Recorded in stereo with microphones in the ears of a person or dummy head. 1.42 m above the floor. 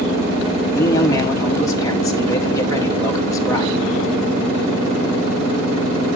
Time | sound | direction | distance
0.8 | a man speaking | 20° left (ahead or behind) | 1.1 m